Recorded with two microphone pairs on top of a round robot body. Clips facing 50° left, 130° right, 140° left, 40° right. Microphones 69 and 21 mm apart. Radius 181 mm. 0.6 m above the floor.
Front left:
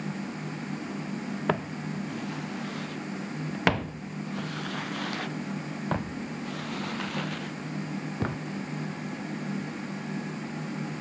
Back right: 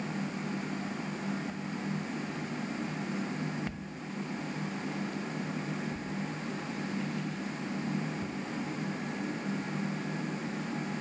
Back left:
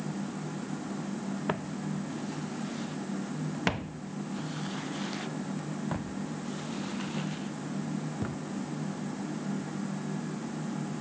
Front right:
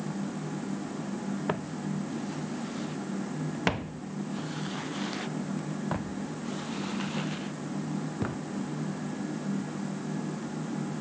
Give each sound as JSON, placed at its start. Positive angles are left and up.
{"t": 1.5, "sound": "footsteps", "azimuth_deg": 50}